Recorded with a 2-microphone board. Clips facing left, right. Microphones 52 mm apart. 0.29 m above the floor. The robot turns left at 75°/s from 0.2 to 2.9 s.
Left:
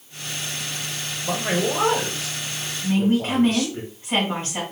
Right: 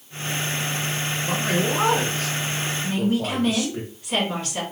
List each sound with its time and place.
1.2 s a man speaking: 20° left (ahead or behind), 1.0 m; by 3.8 s 10° right (ahead or behind), 1.0 m
2.8 s a woman speaking: 35° left (ahead or behind), 3 m; by 4.6 s 30° left (ahead or behind), 3 m